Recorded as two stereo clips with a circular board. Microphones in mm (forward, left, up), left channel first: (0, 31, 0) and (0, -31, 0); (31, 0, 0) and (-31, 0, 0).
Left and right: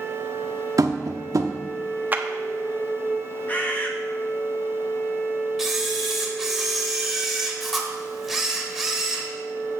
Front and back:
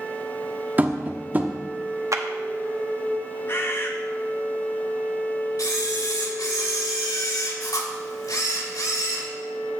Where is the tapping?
115° right, 0.7 m.